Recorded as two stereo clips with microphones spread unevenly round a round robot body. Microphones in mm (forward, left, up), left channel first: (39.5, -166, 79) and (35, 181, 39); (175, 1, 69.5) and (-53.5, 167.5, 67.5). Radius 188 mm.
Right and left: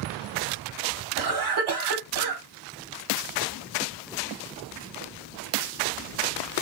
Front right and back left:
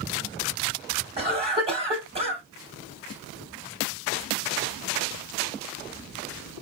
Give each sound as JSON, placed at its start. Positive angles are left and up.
{"t": 1.2, "sound": "a cough", "azimuth_deg": 75, "distance_m": 2.0}